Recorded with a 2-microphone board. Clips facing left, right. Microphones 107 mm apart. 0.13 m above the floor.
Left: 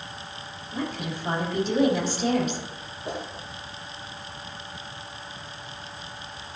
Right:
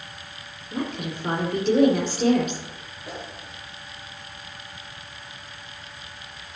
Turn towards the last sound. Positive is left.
turn(degrees=25)  # may be behind; listen again after turning